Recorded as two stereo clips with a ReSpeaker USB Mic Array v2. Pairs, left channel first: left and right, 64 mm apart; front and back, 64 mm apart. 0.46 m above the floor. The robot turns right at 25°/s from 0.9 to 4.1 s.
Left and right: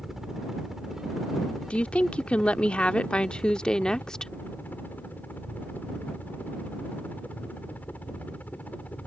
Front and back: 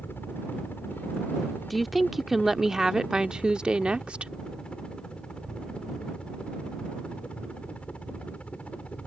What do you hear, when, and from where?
0.0 s a helicopter: 10° right; by 9.1 s 50° left
1.7 s a woman speaking: 85° left; by 4.3 s 145° left